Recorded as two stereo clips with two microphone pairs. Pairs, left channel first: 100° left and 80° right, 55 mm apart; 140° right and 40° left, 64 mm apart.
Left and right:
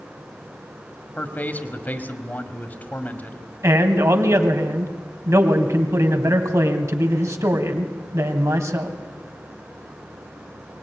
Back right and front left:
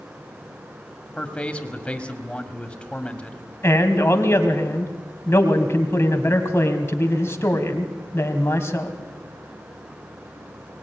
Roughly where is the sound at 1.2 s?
Behind left.